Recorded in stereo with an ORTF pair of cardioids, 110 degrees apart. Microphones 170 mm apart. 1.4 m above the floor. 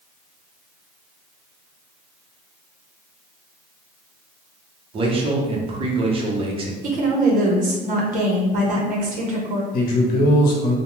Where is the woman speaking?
50° right, 0.9 m.